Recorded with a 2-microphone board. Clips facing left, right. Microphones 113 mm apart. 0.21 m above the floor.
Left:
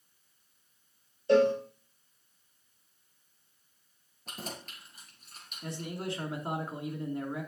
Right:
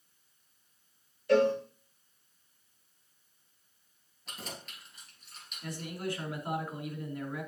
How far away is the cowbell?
About 3.5 m.